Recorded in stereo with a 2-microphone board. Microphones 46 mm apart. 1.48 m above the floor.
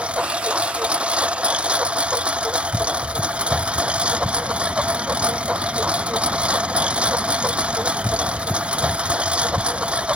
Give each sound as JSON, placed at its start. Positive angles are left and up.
{"t": 0.0, "sound": "a lawn mower", "side_deg": -25}